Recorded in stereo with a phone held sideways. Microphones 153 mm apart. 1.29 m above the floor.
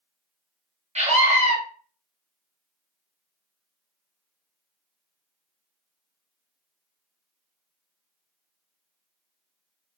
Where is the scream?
45° right (ahead or behind), 1.1 m.